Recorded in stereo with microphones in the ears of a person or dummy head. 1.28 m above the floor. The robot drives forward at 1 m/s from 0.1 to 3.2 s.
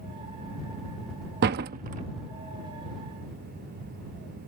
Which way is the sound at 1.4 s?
55° right (ahead or behind).